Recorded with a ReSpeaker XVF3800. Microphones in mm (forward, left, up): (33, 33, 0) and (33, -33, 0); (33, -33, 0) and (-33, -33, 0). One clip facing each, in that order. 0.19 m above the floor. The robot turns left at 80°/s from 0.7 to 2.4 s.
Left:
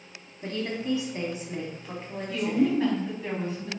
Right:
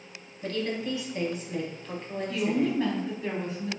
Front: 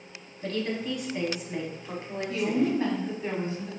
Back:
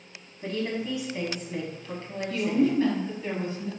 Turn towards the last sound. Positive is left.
turn(degrees=10)